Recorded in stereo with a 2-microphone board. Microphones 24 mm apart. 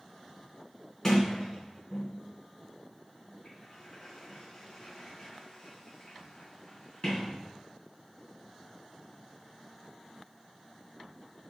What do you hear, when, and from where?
1.0 s a sliding door: 15° left (ahead or behind), 3 m